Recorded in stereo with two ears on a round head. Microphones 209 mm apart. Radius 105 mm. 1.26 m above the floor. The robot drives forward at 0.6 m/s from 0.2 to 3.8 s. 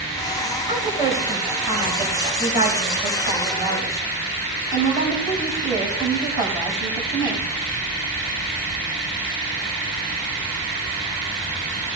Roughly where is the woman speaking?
Right.